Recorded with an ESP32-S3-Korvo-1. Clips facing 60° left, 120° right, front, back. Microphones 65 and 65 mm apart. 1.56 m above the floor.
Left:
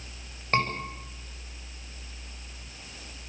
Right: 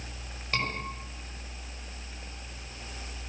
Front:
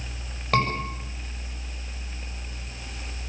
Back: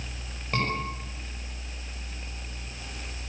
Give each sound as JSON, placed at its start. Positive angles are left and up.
{"t": 0.5, "sound": "a scream", "azimuth_deg": 5, "distance_m": 8.0}